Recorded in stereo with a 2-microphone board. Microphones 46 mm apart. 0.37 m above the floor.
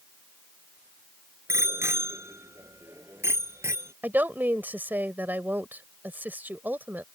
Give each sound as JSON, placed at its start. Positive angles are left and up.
{"t": 1.5, "sound": "a bicycle bell", "side_deg": -80}
{"t": 4.0, "sound": "a woman speaking", "side_deg": -45}